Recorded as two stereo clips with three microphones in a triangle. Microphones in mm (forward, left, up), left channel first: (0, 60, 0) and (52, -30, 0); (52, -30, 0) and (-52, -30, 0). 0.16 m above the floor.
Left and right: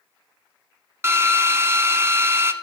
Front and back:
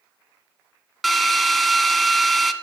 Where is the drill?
90° right, 0.7 m.